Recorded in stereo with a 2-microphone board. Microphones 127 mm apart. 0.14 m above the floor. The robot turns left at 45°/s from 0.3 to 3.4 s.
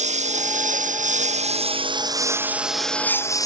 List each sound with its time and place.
0.0 s a lawn mower: 70° right; by 3.5 s 155° left